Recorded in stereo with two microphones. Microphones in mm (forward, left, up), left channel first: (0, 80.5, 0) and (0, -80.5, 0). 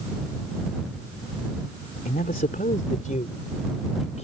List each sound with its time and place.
2.0 s a man speaking: 65° left (ahead or behind); by 4.3 s 45° left (ahead or behind)